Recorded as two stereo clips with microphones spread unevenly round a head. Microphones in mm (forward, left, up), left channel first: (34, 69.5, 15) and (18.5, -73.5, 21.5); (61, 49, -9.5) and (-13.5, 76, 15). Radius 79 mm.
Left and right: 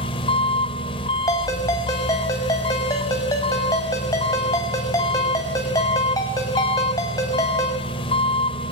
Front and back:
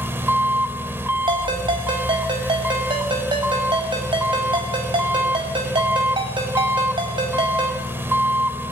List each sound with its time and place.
0.0 s an engine running: 135° left, 1.8 m
1.3 s a ringtone: 155° left, 5.5 m